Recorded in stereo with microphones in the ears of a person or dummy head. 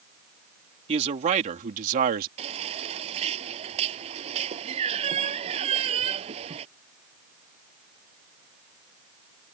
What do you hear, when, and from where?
0.9 s a man speaking: 35° right (ahead or behind); by 2.3 s 45° right (ahead or behind)
2.4 s a baby crying: 35° right (ahead or behind)